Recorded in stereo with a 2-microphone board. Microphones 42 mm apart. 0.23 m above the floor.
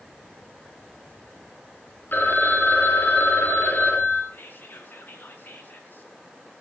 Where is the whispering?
55° left (ahead or behind), 2.5 m.